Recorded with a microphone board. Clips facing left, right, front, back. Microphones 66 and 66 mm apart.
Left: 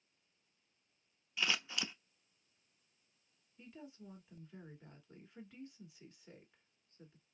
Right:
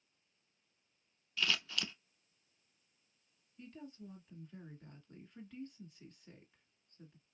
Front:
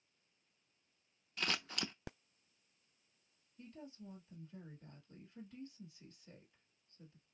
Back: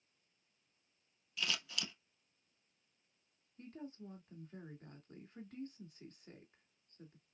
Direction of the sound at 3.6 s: 170° left.